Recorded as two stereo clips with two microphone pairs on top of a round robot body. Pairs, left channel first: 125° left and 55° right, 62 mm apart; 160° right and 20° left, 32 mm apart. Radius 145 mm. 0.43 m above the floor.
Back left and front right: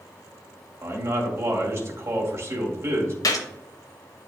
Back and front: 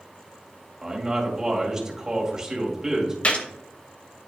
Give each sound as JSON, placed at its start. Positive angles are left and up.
{"t": 0.8, "sound": "a man speaking", "azimuth_deg": -50, "distance_m": 2.0}
{"t": 3.2, "sound": "a gunshot", "azimuth_deg": 145, "distance_m": 0.7}